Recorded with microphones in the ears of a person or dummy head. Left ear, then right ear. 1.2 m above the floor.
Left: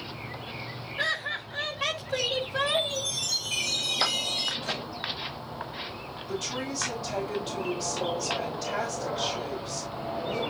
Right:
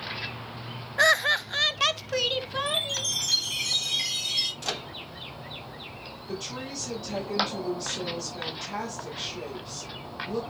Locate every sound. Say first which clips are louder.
1.0 s laughter: right 9 dB; 50° right (ahead or behind), 0.7 m; by 3.1 s 20° right (ahead or behind), 2 m
2.7 s a chime: even; 55° right (ahead or behind), 8 m
4.6 s a microwave: even; 70° right (ahead or behind), 1.4 m
6.3 s a woman speaking: left 3 dB; 25° right (ahead or behind), 5.5 m